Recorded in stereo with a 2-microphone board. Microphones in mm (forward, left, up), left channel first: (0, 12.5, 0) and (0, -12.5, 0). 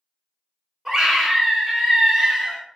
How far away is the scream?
About 1.6 m.